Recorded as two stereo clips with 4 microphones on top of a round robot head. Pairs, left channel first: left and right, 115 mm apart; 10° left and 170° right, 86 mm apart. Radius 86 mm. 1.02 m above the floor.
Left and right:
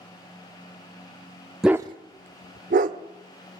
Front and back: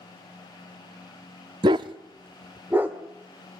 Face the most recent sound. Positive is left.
turn(degrees=-90)